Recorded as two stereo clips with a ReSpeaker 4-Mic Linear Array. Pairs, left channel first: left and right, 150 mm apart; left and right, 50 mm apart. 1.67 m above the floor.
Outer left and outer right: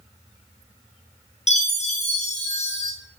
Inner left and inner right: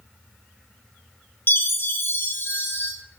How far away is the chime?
About 1.1 m.